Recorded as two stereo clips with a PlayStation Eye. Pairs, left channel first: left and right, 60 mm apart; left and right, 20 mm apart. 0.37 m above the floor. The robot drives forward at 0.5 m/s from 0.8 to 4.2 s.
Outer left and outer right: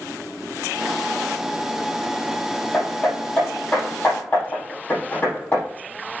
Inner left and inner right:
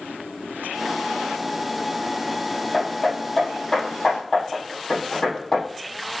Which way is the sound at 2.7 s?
30° left (ahead or behind).